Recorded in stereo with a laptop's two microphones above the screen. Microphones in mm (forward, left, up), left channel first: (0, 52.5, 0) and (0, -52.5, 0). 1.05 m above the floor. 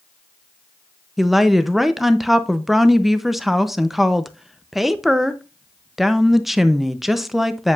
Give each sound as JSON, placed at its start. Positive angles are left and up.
{"t": 1.2, "sound": "a woman speaking", "side_deg": 0, "distance_m": 0.8}